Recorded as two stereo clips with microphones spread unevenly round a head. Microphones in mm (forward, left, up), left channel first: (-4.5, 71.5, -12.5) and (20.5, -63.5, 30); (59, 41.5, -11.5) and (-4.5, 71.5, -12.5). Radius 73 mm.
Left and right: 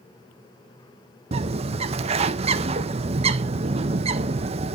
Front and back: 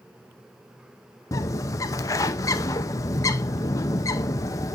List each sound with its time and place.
1.3 s a bird: 30° right, 0.6 m